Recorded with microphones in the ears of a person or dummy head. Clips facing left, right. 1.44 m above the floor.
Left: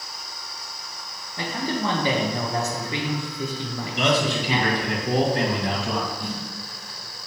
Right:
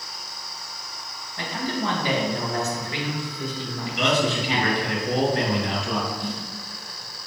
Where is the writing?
I don't hear writing.